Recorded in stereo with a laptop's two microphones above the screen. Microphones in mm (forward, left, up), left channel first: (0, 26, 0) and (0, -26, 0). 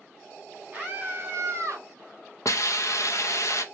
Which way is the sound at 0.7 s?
25° right (ahead or behind).